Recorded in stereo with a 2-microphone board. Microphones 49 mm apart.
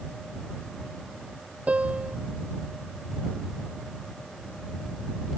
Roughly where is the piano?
Right.